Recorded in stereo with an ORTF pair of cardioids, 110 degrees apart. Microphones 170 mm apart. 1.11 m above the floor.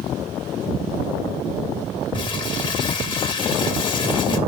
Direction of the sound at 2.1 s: 30° left.